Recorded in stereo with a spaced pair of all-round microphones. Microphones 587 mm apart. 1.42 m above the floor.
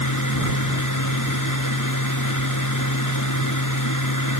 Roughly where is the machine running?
Left.